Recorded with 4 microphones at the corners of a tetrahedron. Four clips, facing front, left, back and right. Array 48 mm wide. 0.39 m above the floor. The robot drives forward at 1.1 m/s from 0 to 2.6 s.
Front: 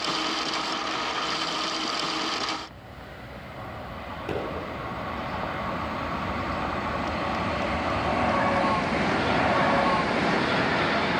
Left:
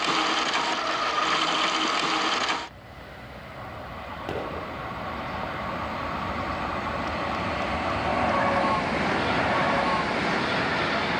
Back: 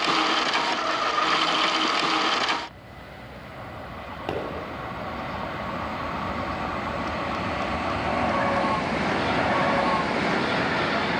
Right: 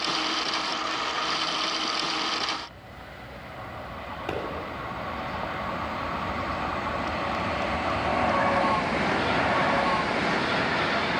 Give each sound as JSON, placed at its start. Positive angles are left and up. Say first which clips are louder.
{"t": 4.3, "sound": "a pop", "louder": "even, back 1 dB", "azimuth_deg": 180, "distance_m": 2.5}